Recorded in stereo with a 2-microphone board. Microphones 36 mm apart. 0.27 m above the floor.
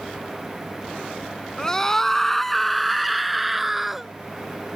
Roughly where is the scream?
Centre.